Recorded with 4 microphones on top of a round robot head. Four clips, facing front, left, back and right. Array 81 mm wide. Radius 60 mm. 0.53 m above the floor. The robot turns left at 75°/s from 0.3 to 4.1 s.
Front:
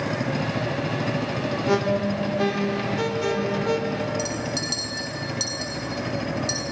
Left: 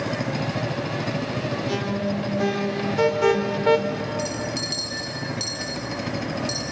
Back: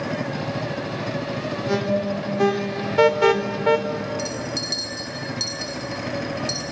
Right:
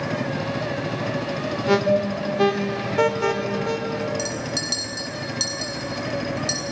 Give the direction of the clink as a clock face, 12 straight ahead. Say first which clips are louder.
Even, even; 2 o'clock.